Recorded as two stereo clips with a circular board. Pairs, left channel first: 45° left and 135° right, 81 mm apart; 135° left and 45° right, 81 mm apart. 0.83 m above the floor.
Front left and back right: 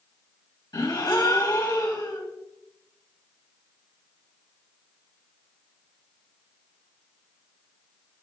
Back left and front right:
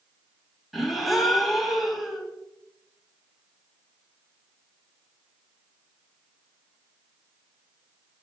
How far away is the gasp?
About 1.5 m.